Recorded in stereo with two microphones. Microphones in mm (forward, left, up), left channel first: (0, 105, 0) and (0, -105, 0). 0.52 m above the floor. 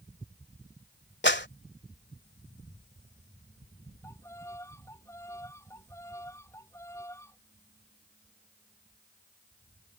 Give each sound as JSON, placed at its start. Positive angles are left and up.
{"t": 1.2, "sound": "a clap", "side_deg": 65}
{"t": 4.0, "sound": "a violin", "side_deg": 15}